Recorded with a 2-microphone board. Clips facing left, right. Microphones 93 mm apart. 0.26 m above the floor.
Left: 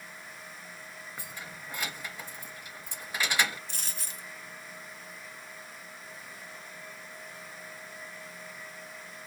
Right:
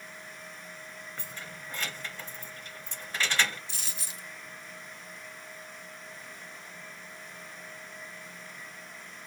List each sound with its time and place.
1.2 s keys jangling: 10° left (ahead or behind), 0.6 m
3.7 s a dropped coin: 45° left (ahead or behind), 1.5 m